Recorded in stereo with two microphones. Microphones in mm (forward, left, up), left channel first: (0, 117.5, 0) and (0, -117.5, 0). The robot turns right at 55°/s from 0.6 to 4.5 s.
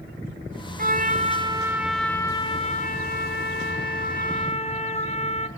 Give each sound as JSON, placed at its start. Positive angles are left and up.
{"t": 0.8, "sound": "a trumpet", "azimuth_deg": -65, "distance_m": 1.9}